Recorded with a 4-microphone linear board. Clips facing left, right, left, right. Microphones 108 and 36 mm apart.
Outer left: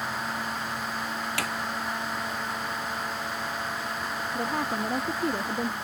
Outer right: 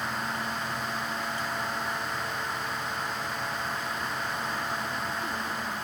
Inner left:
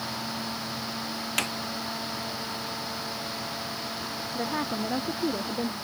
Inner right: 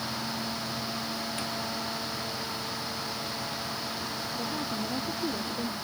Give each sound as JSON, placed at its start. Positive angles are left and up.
{"t": 1.4, "sound": "a snare drum", "side_deg": 85}
{"t": 4.3, "sound": "a woman speaking", "side_deg": 55}